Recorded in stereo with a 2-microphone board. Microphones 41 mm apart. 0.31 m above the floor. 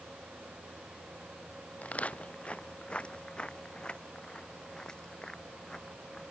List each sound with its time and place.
1.8 s footsteps: 35° left (ahead or behind); by 6.2 s 15° left (ahead or behind)